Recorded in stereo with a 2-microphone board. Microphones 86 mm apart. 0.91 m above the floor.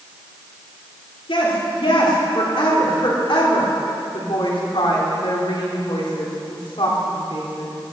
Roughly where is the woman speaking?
Left.